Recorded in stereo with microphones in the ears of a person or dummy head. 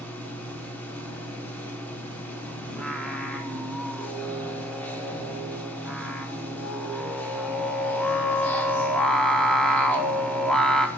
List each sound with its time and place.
0.0 s a machine running: 5° left (ahead or behind), 1.1 m
2.7 s singing: centre (ahead or behind), 0.6 m